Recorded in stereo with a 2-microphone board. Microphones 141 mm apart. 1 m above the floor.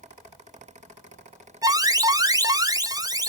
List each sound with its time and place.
1.6 s an alarm: 25° right (ahead or behind), 0.8 m